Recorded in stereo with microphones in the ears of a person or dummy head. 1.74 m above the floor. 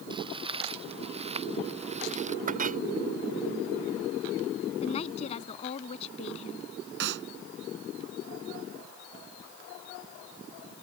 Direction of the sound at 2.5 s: 45° right (ahead or behind).